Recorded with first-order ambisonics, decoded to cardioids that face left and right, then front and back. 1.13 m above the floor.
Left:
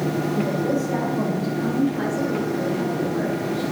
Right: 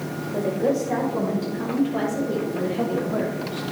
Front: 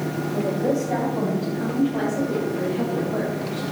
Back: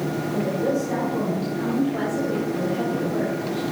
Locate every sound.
0.3 s a woman speaking: 100° right, 5 m; by 3.6 s 90° right, 6.5 m